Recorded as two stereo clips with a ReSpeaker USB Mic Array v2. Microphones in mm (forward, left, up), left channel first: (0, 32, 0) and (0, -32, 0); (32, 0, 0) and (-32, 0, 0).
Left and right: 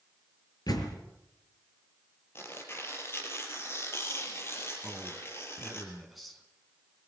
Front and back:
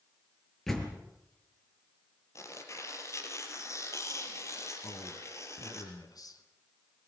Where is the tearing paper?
40° left, 5 m.